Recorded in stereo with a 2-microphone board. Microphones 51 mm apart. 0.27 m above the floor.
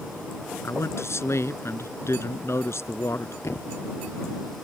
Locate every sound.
0.6 s a man speaking: 65° left (ahead or behind)
3.4 s a thud: 65° left (ahead or behind)